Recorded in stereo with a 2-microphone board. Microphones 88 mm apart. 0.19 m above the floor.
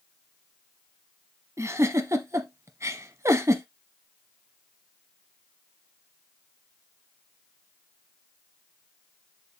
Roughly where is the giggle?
Right.